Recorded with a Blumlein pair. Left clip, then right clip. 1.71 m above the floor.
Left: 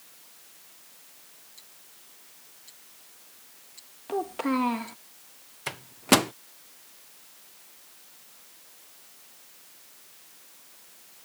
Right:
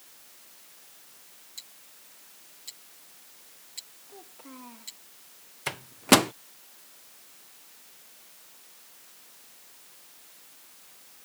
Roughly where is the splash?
I don't hear a splash.